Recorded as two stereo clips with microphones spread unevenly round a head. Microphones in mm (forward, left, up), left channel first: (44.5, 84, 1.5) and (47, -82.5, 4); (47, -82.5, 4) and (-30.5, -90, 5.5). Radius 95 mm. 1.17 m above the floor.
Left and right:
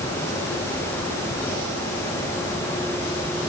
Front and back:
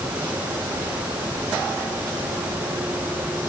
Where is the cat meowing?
I don't hear a cat meowing.